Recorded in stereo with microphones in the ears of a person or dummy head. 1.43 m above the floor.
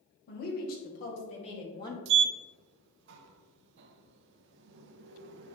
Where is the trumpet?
I don't hear a trumpet.